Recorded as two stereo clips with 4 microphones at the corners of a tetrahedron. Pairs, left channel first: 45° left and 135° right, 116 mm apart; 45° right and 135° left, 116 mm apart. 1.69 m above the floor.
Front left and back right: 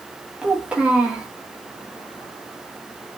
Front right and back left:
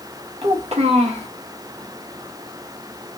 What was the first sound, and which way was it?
A child speaking, 145° left.